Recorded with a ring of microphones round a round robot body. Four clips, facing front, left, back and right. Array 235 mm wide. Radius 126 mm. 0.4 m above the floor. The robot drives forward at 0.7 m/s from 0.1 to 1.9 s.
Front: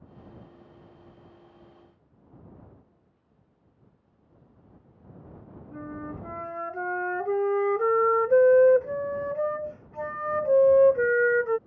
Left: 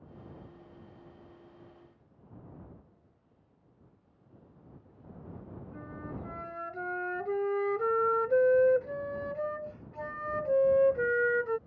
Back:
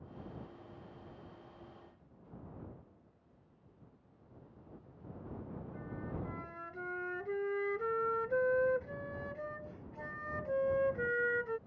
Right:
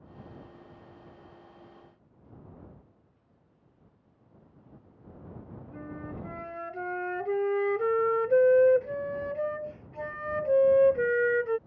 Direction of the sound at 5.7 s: 20° right.